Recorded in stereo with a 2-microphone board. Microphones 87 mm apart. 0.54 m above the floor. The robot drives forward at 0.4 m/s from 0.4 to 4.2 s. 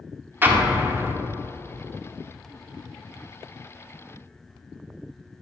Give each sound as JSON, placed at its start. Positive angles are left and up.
{"t": 0.4, "sound": "an explosion", "side_deg": -25, "distance_m": 0.8}